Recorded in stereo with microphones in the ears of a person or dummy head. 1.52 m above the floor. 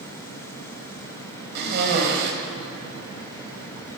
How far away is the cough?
About 7 m.